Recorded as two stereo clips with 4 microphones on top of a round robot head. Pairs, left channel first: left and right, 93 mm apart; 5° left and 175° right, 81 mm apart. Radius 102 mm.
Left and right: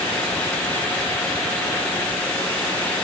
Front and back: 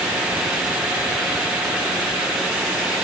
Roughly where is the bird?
No bird in this recording.